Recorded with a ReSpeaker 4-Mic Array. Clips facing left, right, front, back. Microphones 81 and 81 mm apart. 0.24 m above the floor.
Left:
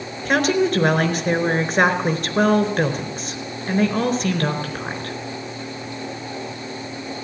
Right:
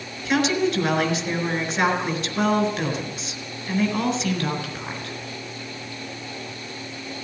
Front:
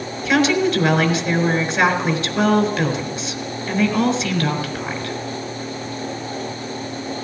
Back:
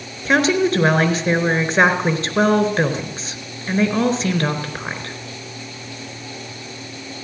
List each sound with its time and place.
0.2 s a woman speaking: 130° left, 4 m